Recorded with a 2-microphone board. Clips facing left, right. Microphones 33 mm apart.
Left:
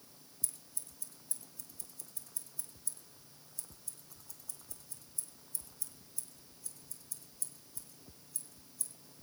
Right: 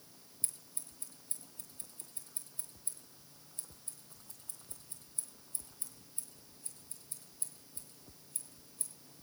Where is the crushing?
No crushing in this recording.